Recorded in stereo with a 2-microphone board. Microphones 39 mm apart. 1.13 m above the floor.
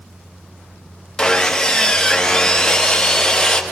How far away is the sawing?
About 0.8 m.